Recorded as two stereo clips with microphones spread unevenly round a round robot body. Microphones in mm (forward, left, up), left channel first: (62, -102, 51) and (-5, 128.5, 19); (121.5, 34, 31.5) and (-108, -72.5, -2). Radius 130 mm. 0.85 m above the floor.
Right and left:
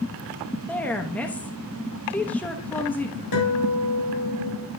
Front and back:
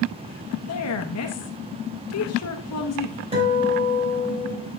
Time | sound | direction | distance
0.7 | a woman speaking | 15° left | 1.1 m
3.3 | a guitar | 85° right | 3.5 m